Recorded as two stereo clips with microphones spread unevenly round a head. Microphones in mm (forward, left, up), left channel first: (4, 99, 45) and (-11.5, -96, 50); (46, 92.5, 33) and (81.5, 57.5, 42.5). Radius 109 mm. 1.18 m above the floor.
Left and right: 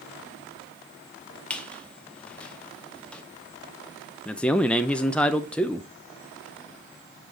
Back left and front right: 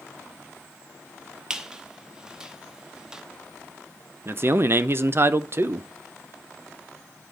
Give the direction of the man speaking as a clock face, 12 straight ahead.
12 o'clock.